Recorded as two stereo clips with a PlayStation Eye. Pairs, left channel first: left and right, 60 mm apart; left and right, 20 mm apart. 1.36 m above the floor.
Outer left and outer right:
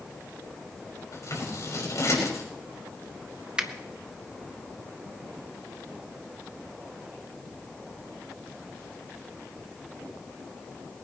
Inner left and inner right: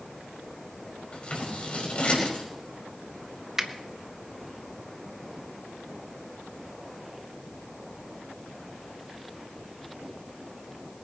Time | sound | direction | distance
1.1 | scissors | 60° left (ahead or behind) | 6 m
3.6 | a finger snap | 15° right (ahead or behind) | 1.1 m